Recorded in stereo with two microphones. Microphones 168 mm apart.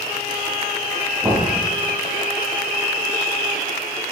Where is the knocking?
15° right (ahead or behind), 4.5 m.